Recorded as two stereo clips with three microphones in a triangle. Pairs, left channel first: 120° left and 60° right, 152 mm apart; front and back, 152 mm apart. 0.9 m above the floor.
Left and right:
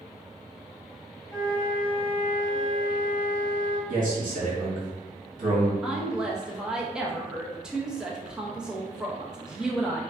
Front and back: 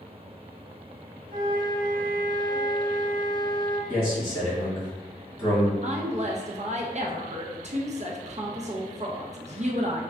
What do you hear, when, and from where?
1.3 s a flute: straight behind, 1.1 m
3.9 s a man speaking: 75° right, 1.5 m
5.8 s a woman speaking: 145° right, 0.5 m